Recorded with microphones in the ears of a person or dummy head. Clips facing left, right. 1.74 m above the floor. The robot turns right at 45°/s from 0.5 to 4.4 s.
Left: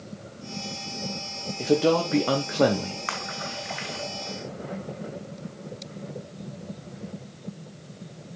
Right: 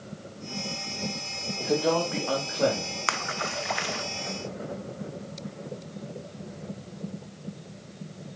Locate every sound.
1.6 s a man speaking: 40° left, 1.2 m; by 3.0 s 105° left, 1.2 m
3.1 s a splash: 55° right (ahead or behind), 0.7 m; by 4.0 s 75° right (ahead or behind), 0.7 m